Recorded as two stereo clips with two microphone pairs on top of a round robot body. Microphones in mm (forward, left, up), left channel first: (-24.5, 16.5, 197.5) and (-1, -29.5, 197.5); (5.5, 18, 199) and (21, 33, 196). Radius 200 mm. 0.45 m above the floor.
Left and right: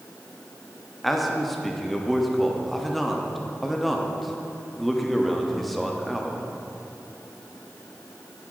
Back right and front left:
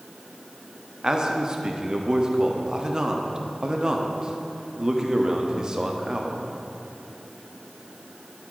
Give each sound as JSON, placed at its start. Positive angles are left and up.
{"t": 1.0, "sound": "a man speaking", "azimuth_deg": 30, "distance_m": 1.3}